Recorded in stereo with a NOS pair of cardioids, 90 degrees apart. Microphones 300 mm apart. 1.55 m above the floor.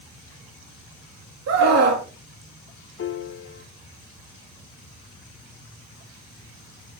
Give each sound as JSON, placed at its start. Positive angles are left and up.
{"t": 1.5, "sound": "a scream", "azimuth_deg": -65, "distance_m": 2.5}
{"t": 3.0, "sound": "a piano", "azimuth_deg": 45, "distance_m": 1.3}